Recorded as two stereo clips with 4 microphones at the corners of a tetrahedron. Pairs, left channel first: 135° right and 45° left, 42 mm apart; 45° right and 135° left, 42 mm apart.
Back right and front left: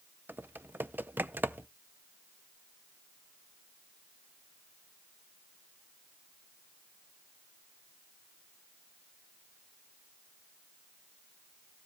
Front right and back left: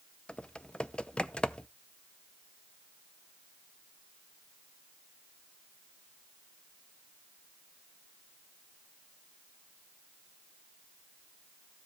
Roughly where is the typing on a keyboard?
Ahead.